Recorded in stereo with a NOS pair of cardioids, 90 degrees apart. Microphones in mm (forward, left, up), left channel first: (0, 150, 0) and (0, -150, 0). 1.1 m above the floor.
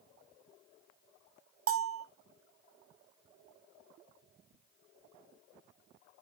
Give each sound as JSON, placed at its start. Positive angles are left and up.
{"t": 1.7, "sound": "a bell", "azimuth_deg": -50, "distance_m": 0.6}